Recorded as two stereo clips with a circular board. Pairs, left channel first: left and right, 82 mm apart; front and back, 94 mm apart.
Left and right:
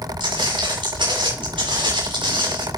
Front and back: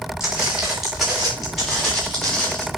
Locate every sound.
0.2 s footsteps: 95° right, 6.5 m; by 2.7 s 85° right, 7 m